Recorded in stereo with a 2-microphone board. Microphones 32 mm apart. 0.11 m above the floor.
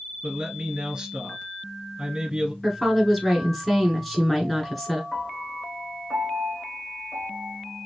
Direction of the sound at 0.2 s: 20° right (ahead or behind).